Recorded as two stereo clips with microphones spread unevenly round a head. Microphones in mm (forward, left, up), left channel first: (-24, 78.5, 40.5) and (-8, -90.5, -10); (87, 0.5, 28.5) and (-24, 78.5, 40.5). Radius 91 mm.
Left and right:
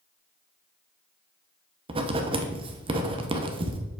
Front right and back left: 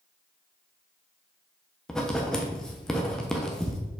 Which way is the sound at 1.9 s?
115° right.